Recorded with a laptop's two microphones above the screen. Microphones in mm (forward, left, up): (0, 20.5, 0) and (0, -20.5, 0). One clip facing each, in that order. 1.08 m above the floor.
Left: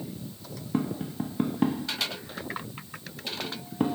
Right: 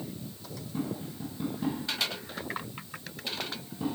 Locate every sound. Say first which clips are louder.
0.7 s tapping: left 6 dB; 75° left (ahead or behind), 0.9 m